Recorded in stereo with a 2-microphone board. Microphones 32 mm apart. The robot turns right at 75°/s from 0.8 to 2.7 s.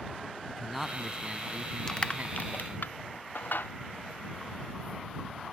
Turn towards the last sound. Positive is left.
turn(degrees=75)  # may be behind; listen again after turning